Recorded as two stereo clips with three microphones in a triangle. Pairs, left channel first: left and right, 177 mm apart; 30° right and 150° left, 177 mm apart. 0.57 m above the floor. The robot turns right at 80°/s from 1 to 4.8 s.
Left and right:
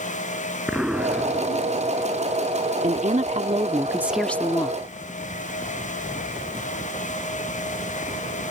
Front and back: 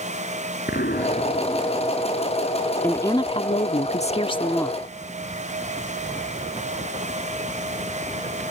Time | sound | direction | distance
0.7 | an explosion | 5° right | ?
2.8 | a woman speaking | 110° right | ?